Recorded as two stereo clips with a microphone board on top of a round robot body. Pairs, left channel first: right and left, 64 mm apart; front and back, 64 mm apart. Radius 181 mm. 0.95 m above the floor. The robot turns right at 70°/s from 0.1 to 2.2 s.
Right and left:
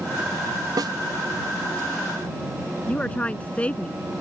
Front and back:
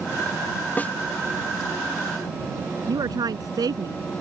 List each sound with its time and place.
0.8 s a snare drum: 65° left; by 0.9 s 75° left
2.9 s a woman speaking: 160° right